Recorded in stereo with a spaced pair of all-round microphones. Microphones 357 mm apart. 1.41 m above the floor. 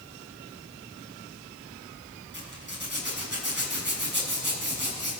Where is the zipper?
30° right (ahead or behind), 6.5 m.